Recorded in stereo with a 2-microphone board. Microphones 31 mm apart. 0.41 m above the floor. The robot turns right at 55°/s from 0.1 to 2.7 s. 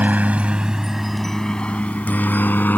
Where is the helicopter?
55° right (ahead or behind); by 2.8 s 70° left (ahead or behind).